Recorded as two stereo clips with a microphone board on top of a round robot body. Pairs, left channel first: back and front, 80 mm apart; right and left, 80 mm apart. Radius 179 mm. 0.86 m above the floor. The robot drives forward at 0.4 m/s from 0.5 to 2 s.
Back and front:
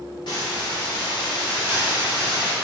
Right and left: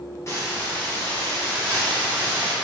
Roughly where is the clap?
I don't hear a clap.